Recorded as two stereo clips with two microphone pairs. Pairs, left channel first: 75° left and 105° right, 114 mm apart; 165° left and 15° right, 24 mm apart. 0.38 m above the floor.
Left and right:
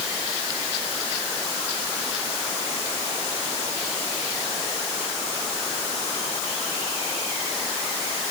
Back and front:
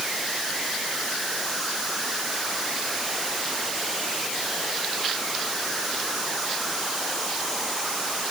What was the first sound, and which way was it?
Only background noise.